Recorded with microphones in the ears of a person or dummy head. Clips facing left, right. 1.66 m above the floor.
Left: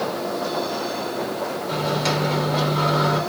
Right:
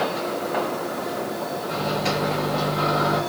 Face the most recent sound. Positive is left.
turn(degrees=70)  # may be behind; listen again after turning